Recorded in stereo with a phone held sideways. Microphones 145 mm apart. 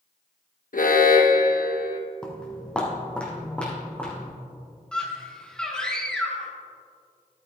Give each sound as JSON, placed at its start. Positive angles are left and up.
{"t": 0.7, "sound": "an alarm", "side_deg": 75, "distance_m": 0.8}
{"t": 2.2, "sound": "footsteps", "side_deg": 5, "distance_m": 1.7}
{"t": 4.9, "sound": "a scream", "side_deg": 5, "distance_m": 1.9}